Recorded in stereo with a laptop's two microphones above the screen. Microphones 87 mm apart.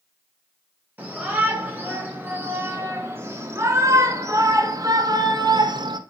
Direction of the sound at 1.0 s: 20° right (ahead or behind).